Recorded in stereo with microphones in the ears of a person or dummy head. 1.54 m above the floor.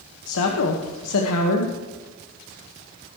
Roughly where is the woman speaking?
Left.